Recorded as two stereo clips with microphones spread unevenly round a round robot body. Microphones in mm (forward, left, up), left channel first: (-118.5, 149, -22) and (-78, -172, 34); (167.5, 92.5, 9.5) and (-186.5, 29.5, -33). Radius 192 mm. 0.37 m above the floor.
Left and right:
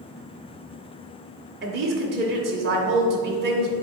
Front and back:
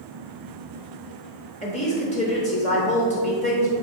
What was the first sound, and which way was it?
A woman speaking, 50° right.